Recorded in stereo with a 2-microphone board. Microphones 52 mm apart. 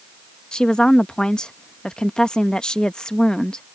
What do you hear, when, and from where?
0.5 s a woman speaking: 15° left (ahead or behind)